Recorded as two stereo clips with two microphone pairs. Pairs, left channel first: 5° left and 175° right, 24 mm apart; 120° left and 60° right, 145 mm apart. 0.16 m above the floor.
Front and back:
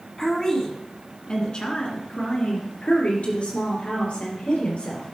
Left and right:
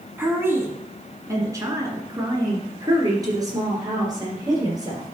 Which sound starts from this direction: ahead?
A woman speaking, at 0.2 s.